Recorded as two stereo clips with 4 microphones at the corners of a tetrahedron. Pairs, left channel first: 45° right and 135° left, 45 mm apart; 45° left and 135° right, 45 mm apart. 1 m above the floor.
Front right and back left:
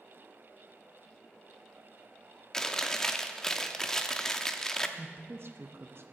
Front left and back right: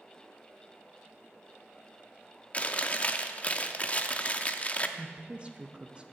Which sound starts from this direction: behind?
A woman speaking, at 5.0 s.